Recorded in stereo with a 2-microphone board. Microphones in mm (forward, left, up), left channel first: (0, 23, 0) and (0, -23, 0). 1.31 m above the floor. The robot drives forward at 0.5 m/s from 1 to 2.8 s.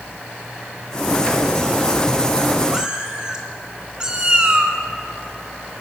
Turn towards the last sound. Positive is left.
turn(degrees=-20)  # may be behind; listen again after turning